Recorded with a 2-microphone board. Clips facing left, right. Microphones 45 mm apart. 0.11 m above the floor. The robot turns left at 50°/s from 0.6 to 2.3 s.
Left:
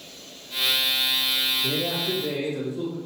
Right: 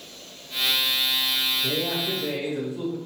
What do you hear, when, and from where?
1.6 s a man speaking: 25° right, 1.9 m; by 3.0 s 60° right, 1.9 m